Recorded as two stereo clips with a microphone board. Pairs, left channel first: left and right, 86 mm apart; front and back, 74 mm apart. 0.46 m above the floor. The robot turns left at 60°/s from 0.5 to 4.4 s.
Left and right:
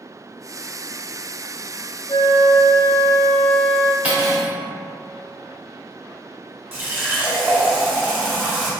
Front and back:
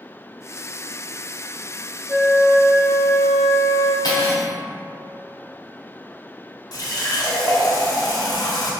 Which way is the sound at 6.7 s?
25° right.